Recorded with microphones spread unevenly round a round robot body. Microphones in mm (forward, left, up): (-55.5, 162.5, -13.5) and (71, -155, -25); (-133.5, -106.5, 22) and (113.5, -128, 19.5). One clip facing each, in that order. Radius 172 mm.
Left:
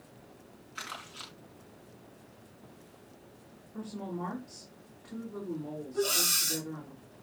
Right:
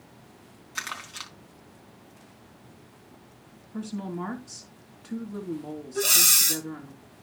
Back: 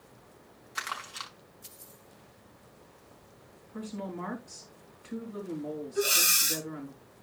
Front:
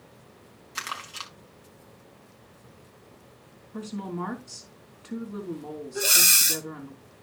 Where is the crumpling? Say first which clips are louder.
Right 3 dB, front 2 dB; 55° right, 4.5 m.